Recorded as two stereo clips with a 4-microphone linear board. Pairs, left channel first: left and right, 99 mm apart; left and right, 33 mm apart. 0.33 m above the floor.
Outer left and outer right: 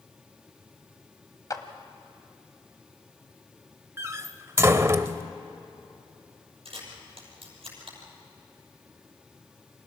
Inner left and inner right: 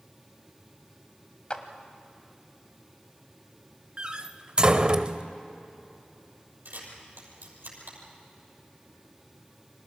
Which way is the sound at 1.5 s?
35° left (ahead or behind).